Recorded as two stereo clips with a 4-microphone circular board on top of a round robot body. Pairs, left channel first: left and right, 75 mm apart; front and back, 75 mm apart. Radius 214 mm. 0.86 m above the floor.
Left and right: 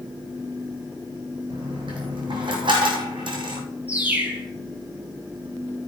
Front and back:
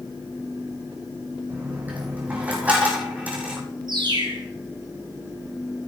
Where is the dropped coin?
110° right, 2 m.